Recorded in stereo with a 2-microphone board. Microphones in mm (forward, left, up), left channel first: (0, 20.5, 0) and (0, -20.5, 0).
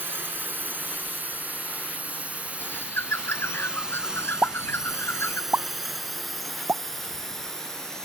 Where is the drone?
60° right (ahead or behind); by 8.1 s 10° left (ahead or behind).